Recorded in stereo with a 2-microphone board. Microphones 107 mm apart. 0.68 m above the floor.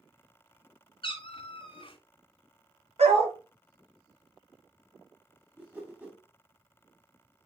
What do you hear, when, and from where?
1.0 s a cat meowing: 55° left (ahead or behind), 0.8 m
3.0 s a dog barking: 75° right (ahead or behind), 1.2 m
5.6 s a whoosh: 20° right (ahead or behind), 1.2 m